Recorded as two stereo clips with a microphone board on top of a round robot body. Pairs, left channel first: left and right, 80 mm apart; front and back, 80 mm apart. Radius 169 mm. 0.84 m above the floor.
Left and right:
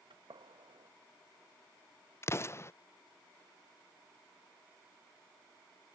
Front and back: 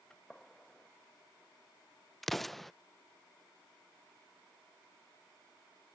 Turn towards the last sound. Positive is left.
turn(degrees=85)